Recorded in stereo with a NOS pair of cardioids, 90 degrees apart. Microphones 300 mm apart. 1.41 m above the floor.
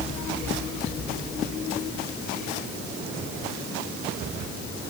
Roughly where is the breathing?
No breathing in this recording.